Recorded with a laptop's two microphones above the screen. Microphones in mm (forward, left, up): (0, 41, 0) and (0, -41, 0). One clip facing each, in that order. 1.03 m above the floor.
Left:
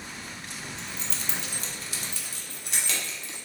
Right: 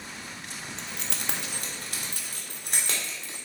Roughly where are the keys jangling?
Right.